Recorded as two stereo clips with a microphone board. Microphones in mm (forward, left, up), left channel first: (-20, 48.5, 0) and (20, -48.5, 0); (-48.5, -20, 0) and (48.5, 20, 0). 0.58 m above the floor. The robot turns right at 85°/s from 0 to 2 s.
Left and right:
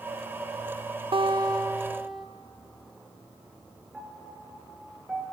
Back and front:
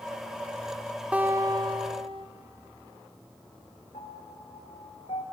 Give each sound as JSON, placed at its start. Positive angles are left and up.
{"t": 1.1, "sound": "a guitar", "azimuth_deg": -55, "distance_m": 0.8}
{"t": 3.9, "sound": "a piano", "azimuth_deg": -150, "distance_m": 2.5}